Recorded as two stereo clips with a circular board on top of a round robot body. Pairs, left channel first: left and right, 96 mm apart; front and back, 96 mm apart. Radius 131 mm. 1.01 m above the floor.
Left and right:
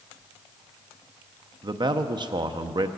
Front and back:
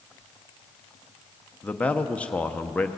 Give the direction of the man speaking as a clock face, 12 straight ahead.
2 o'clock.